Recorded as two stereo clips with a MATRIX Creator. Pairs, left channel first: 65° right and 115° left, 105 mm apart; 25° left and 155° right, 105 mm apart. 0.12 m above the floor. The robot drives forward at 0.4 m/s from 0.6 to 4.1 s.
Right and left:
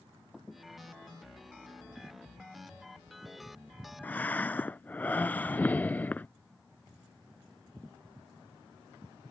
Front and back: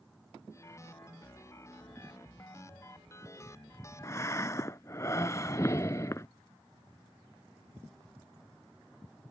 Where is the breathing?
5° right.